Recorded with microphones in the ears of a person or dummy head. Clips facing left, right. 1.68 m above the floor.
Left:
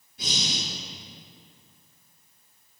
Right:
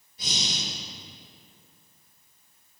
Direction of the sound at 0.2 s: 50° left (ahead or behind).